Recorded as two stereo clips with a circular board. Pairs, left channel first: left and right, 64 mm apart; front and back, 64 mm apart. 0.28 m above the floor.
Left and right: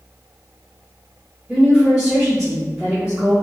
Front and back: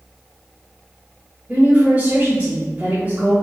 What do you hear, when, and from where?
1.5 s a woman speaking: 165° right, 1.1 m